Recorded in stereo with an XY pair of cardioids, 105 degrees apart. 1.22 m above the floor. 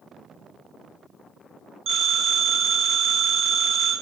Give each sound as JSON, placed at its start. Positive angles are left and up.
{"t": 1.9, "sound": "a phone ringing", "azimuth_deg": -70, "distance_m": 1.2}